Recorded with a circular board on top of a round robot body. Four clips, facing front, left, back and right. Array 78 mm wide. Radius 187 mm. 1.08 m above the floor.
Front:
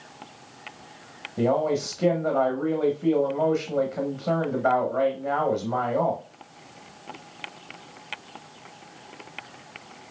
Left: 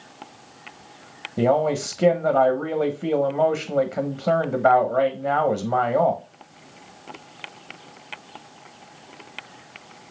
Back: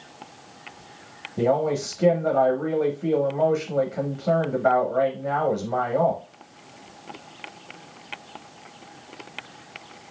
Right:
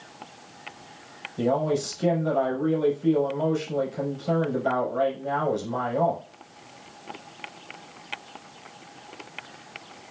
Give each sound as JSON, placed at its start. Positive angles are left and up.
{"t": 1.4, "sound": "a man speaking", "azimuth_deg": 95, "distance_m": 1.3}